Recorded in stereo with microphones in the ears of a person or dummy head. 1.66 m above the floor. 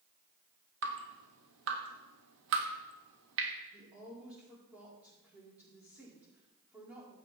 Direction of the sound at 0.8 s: 65° right (ahead or behind).